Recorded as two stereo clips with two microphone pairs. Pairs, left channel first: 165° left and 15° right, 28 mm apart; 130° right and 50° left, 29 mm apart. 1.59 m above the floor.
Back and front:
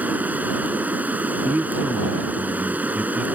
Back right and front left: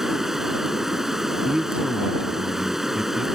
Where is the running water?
30° right.